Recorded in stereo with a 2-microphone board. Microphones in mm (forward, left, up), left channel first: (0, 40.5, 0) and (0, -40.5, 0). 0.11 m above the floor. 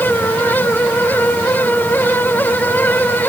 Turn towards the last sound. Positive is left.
No sound to turn to.